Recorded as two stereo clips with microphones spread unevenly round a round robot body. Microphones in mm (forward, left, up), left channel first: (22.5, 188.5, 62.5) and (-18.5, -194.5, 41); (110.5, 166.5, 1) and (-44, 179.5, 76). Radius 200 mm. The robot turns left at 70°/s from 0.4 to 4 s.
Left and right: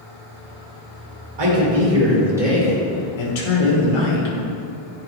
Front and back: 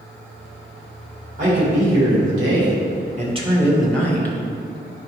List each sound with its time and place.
1.4 s a man speaking: 110° right, 2.5 m; by 4.3 s 70° left, 2.5 m